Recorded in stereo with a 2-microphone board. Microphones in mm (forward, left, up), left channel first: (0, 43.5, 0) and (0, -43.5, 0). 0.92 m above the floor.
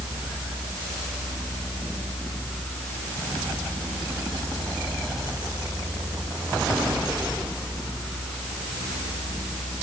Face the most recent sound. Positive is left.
No sound to turn to.